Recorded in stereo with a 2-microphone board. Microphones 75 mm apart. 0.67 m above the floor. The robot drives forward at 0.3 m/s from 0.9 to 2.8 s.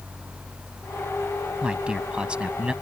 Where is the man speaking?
15° right (ahead or behind).